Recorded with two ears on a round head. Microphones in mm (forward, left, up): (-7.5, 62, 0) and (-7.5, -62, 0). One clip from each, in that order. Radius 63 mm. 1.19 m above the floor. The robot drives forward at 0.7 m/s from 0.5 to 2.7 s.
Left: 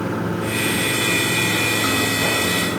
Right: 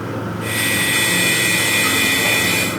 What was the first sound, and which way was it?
Running water, 30° left (ahead or behind).